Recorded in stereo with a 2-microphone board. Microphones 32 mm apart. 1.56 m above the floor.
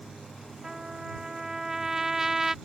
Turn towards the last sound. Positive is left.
turn(degrees=-15)  # may be behind; listen again after turning